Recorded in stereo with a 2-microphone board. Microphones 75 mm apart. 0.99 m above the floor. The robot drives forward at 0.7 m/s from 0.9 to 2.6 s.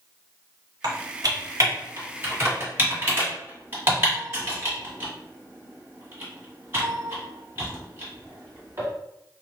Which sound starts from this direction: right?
Typing on a keyboard, at 0.8 s.